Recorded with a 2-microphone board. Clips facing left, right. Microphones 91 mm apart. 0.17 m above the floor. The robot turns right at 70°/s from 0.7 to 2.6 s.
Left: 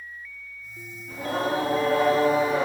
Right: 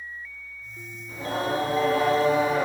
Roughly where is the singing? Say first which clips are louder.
Left 1 dB; ahead left.